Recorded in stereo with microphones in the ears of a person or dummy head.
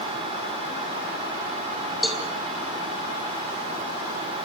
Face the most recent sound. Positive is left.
turn(degrees=5)  # may be behind; listen again after turning